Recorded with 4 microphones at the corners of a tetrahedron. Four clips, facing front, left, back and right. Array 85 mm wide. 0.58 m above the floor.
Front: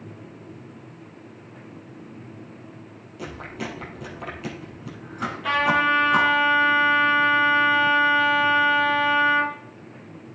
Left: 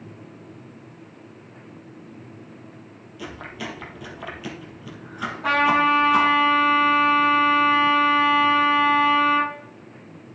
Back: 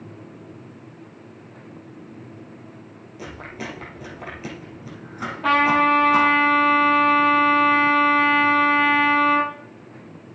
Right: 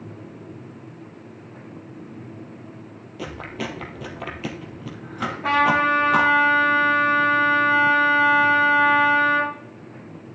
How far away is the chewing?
About 3 m.